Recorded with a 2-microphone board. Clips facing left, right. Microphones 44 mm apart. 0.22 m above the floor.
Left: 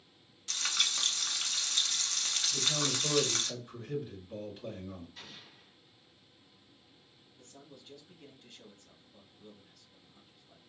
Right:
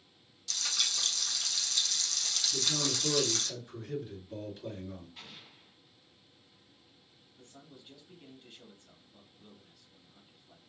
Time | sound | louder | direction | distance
0.5 | frying | left 2 dB | 35° left (ahead or behind) | 0.8 m
2.5 | a man speaking | even | 20° left (ahead or behind) | 2.5 m
5.2 | an explosion | even | 10° right (ahead or behind) | 1.8 m
7.3 | a man speaking | even | 10° right (ahead or behind) | 1.1 m